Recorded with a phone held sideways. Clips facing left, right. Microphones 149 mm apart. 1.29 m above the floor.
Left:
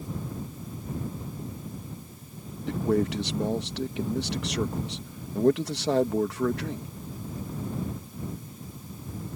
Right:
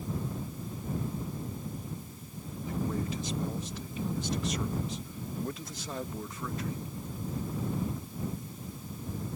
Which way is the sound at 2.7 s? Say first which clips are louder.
Left 9 dB; 75° left (ahead or behind).